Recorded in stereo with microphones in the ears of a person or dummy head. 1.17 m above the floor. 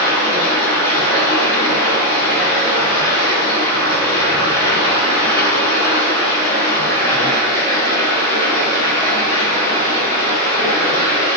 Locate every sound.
0.0 s running water: 25° left (ahead or behind), 2.5 m